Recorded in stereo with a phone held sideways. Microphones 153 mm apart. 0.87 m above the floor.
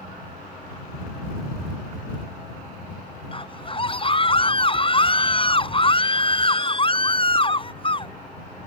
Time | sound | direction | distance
3.3 | a scream | 35° left (ahead or behind) | ?